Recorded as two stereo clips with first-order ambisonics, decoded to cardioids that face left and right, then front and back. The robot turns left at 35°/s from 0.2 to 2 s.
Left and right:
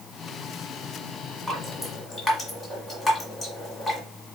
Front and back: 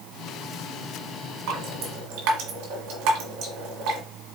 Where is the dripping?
175° right, 1.7 m; by 4.0 s 170° left, 1.7 m.